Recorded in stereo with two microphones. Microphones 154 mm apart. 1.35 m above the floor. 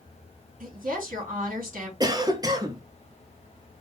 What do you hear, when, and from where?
0.6 s a woman speaking: 60° right (ahead or behind), 2.5 m
2.0 s a cough: 25° right (ahead or behind), 0.5 m